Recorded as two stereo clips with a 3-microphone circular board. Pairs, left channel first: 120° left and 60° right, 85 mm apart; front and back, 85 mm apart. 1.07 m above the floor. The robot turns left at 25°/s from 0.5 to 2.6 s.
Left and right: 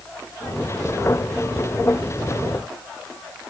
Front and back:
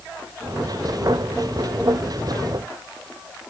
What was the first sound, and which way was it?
Only background noise.